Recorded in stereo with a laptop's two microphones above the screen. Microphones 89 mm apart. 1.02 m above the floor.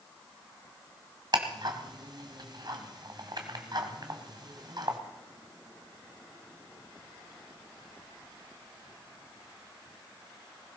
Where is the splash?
I don't hear a splash.